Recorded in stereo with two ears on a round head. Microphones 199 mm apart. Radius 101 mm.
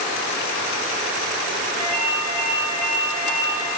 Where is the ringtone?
80° right, 6.5 m.